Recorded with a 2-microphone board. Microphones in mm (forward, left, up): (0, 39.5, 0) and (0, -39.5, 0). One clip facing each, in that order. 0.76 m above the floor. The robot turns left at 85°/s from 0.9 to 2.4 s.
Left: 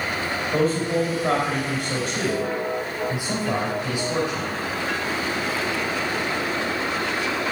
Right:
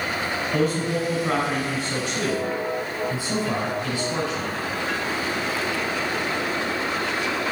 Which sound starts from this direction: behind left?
A man speaking, at 0.5 s.